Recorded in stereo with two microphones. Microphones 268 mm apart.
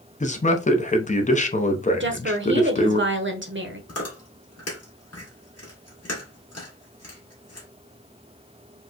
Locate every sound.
0.2 s a man speaking: 30° left (ahead or behind), 0.7 m
2.0 s a woman speaking: 45° right (ahead or behind), 0.9 m
3.9 s chewing: 65° left (ahead or behind), 1.9 m